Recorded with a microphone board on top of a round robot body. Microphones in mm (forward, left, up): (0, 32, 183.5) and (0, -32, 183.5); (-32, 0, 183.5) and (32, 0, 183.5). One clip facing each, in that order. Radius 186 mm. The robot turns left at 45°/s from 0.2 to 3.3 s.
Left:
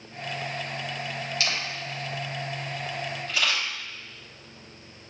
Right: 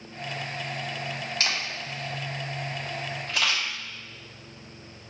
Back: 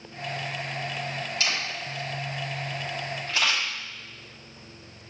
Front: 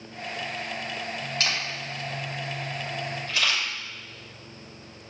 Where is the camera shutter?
35° right, 3 m; by 3.6 s 120° right, 3 m.